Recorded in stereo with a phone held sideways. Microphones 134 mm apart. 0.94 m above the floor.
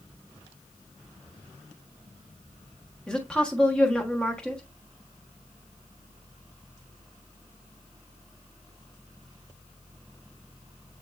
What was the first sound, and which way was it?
A woman speaking, 5° left (ahead or behind).